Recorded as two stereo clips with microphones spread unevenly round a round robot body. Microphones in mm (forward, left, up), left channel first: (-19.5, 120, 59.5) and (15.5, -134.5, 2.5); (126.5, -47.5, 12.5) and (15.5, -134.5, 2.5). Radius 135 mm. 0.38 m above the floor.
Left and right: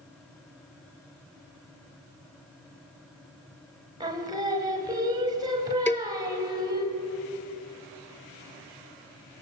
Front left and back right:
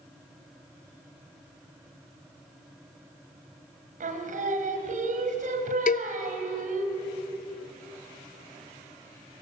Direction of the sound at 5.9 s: 20° left.